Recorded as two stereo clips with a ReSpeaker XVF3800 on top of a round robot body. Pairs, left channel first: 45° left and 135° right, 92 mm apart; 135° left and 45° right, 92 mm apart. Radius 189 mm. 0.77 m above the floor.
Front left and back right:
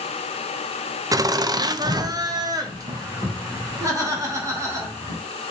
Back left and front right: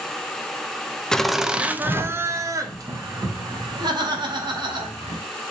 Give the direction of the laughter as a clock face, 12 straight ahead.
5 o'clock.